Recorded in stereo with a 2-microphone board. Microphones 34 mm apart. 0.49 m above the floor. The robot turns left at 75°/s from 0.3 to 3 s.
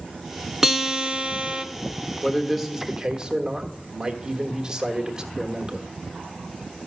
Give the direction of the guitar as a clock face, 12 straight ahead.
1 o'clock.